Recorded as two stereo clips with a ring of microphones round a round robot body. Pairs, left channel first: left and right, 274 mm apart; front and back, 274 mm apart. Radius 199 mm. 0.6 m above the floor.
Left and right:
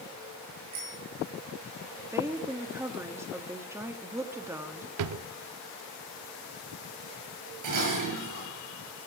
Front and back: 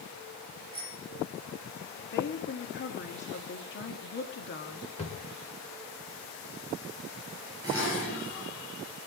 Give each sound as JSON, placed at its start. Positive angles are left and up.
{"t": 0.7, "sound": "a bicycle bell", "azimuth_deg": -80, "distance_m": 9.0}
{"t": 2.1, "sound": "a woman speaking", "azimuth_deg": -15, "distance_m": 1.3}
{"t": 5.0, "sound": "a drawer", "azimuth_deg": -75, "distance_m": 0.6}
{"t": 7.6, "sound": "dishes clattering", "azimuth_deg": -100, "distance_m": 7.0}